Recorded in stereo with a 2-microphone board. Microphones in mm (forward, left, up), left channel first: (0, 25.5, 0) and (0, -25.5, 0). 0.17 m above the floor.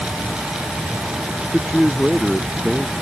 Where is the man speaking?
5° right (ahead or behind).